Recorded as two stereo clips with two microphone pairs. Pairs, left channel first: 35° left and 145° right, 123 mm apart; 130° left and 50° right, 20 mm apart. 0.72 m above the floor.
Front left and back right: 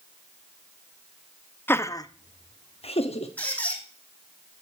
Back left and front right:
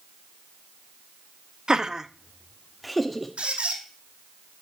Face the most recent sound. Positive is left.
turn(degrees=-45)